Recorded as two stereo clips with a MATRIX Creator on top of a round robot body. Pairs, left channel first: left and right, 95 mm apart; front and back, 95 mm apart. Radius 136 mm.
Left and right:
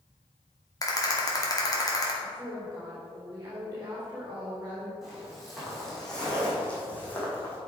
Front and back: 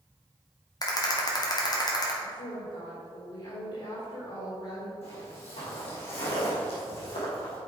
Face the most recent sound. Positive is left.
turn(degrees=20)